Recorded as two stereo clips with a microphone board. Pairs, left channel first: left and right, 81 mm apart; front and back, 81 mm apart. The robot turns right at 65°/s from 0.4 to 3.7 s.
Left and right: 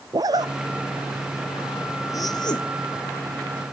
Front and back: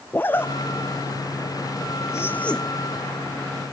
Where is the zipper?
60° right, 0.5 m; by 2.6 s 85° left, 0.5 m.